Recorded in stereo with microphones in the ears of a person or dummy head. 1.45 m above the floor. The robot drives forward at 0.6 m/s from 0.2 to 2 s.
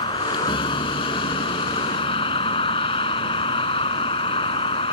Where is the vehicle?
30° left (ahead or behind).